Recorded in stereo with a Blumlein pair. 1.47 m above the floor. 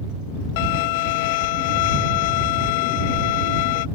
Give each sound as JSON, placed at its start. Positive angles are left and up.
{"t": 0.6, "sound": "a violin", "azimuth_deg": 50}